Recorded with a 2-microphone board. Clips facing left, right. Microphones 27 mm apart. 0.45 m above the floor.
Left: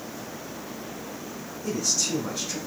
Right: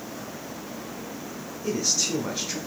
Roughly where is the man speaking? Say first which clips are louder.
Right 1 dB; right.